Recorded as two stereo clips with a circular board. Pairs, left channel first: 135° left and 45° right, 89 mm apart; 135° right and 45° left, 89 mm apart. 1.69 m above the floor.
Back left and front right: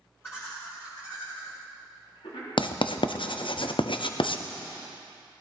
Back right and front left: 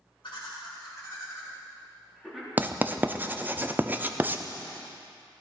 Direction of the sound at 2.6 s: 115° left.